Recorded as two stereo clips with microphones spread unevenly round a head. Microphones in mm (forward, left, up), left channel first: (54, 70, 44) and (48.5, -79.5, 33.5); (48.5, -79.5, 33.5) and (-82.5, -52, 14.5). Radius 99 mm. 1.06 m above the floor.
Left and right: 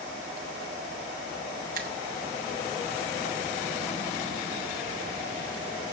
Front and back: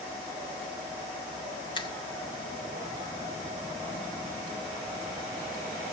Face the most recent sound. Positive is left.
turn(degrees=-65)